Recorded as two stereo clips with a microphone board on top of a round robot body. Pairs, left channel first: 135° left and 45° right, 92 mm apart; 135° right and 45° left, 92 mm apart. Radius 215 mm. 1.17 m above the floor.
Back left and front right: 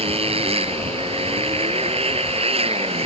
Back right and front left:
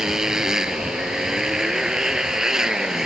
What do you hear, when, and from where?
0.0 s a motorcycle: 40° right